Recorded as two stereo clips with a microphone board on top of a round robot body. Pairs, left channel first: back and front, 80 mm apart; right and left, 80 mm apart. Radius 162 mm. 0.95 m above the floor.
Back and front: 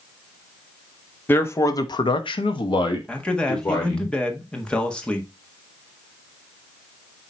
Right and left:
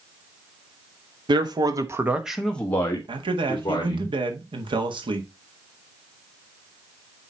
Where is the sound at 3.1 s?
100° left, 1.5 m.